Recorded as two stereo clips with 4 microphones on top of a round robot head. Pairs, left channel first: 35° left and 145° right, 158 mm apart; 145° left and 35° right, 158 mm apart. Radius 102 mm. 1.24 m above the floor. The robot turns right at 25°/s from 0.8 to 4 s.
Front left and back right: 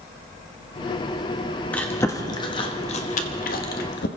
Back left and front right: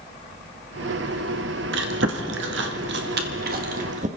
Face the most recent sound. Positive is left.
turn(degrees=10)